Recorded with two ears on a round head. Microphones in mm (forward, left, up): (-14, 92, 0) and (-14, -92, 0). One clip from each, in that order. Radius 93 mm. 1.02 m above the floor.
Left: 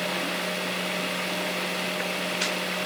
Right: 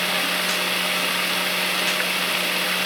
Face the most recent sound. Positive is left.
turn(degrees=-45)  # may be behind; listen again after turning